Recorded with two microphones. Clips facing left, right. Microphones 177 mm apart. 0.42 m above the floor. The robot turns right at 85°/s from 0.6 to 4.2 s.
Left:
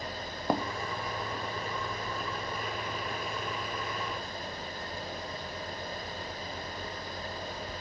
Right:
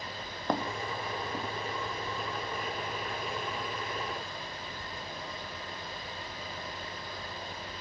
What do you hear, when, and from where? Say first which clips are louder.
0.5 s footsteps: left 1 dB; 10° left (ahead or behind); by 7.5 s 5° left (ahead or behind)